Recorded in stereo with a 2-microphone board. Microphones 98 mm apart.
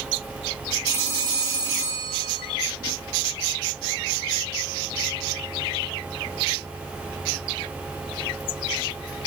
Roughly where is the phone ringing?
Right.